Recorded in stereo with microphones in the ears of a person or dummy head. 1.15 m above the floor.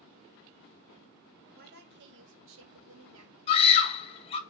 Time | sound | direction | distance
1.6 | a woman speaking | 45° right (ahead or behind) | 1.6 m
3.5 | a scream | 30° left (ahead or behind) | 1.7 m